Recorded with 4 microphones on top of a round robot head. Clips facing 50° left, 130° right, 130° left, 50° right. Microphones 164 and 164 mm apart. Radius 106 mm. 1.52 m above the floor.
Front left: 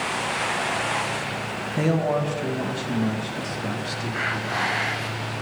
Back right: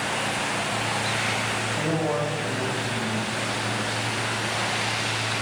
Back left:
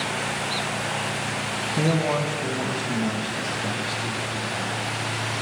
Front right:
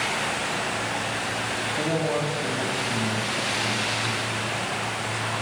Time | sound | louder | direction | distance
1.8 | a man speaking | front left 4 dB, back left 2 dB | 115° left | 1.5 m